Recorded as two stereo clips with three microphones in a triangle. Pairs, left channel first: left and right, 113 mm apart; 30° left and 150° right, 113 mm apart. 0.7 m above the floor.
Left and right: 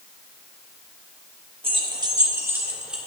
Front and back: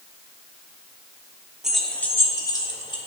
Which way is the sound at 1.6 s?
65° right.